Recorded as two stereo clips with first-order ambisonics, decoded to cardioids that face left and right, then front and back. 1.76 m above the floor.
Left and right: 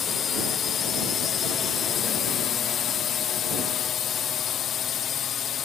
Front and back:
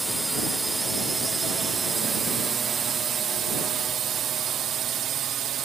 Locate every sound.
0.0 s a drone: 105° left; by 5.7 s 140° left